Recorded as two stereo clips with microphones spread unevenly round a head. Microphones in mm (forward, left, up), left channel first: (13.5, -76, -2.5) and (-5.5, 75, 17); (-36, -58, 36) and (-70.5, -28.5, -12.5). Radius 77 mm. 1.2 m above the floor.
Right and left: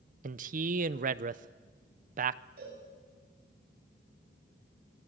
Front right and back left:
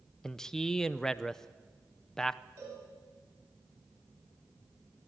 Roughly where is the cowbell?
Behind left.